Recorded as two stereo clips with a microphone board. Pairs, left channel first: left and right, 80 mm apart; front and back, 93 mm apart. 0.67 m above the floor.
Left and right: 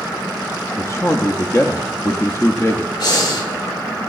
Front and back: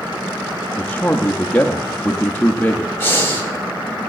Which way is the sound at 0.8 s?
60° left.